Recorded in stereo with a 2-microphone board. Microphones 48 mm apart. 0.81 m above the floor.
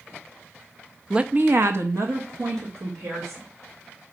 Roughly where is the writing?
I don't hear writing.